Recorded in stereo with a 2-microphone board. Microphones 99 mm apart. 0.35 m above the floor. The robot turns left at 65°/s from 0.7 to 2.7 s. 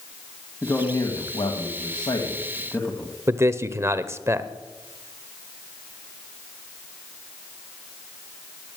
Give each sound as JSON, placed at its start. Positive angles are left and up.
{"t": 0.6, "sound": "a man speaking", "azimuth_deg": 160, "distance_m": 1.9}
{"t": 3.3, "sound": "a man speaking", "side_deg": -30, "distance_m": 0.9}